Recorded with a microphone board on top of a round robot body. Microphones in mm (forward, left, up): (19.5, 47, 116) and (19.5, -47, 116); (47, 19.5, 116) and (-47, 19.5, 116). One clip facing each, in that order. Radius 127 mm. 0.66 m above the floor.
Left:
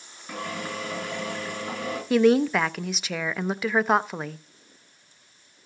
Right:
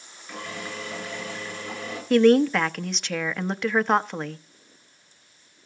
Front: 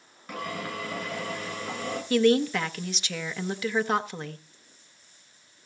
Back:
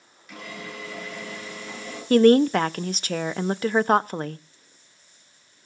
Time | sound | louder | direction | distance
0.3 | a drill | left 3 dB, front 4 dB | 45° left | 8 m
2.1 | a woman speaking | right 2 dB, back 7 dB | 175° left | 0.7 m